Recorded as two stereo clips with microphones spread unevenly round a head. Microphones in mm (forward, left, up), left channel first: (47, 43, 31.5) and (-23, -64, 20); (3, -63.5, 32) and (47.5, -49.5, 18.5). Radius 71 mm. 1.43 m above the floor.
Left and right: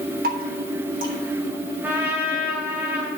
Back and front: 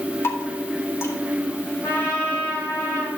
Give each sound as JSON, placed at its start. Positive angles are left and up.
{"t": 0.2, "sound": "dripping", "azimuth_deg": -145, "distance_m": 3.0}
{"t": 1.8, "sound": "a trumpet", "azimuth_deg": 155, "distance_m": 2.5}